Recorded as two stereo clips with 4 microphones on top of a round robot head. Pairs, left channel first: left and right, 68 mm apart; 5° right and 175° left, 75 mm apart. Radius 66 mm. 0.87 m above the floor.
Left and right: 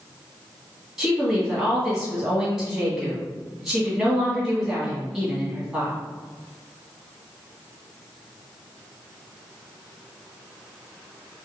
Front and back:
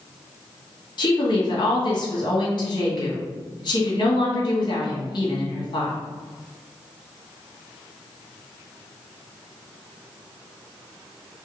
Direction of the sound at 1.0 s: Straight ahead.